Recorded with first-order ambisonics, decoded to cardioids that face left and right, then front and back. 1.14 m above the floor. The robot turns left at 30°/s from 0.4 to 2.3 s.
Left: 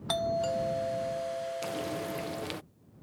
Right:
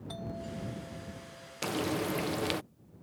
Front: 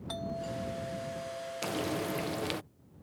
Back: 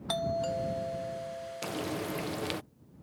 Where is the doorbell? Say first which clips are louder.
Left 13 dB, back 7 dB; 120° left; by 2.5 s 65° left.